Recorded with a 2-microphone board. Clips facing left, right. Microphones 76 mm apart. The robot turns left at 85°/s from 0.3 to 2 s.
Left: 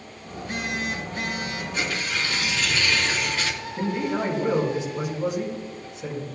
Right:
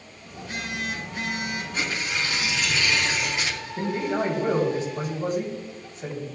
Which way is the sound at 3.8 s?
45° right (ahead or behind).